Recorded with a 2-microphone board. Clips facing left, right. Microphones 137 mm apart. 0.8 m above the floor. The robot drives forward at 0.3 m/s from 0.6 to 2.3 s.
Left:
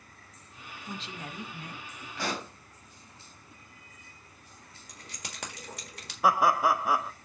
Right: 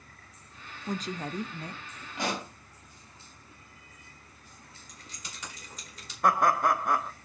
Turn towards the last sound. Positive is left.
turn(degrees=5)  # may be behind; listen again after turning